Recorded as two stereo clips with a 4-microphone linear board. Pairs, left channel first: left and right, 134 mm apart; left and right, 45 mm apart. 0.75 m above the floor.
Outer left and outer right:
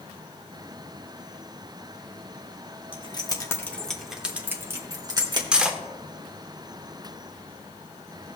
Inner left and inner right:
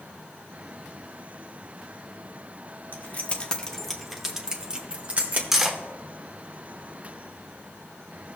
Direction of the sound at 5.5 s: 5° right (ahead or behind).